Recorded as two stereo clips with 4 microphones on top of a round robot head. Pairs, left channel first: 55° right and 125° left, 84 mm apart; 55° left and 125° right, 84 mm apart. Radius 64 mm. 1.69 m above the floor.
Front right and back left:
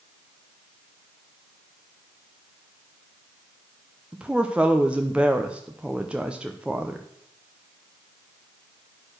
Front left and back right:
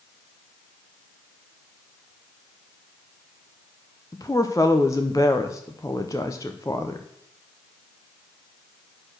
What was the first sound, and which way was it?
A woman speaking, 60° left.